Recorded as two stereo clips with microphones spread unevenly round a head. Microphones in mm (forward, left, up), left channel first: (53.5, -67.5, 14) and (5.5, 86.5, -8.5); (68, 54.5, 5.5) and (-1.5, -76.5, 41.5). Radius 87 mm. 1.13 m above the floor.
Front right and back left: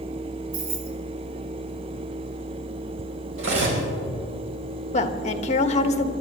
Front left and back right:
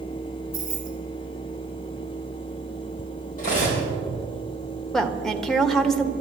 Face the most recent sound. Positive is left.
turn(degrees=-25)